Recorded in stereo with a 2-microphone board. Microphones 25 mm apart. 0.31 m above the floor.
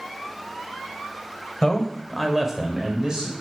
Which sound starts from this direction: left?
A man speaking, at 1.6 s.